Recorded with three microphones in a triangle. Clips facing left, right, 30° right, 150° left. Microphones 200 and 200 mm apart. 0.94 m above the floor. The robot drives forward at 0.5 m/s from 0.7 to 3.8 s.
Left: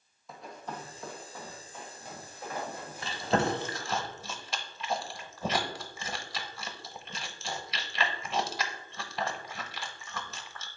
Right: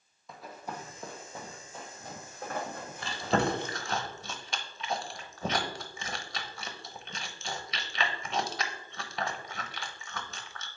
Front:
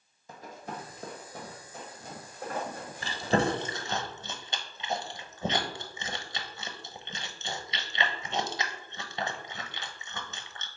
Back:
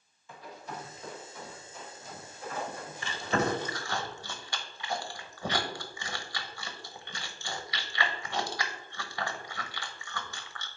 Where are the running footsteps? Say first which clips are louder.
Even, front 2 dB; straight ahead, 1.4 m; by 4.0 s 70° right, 3 m.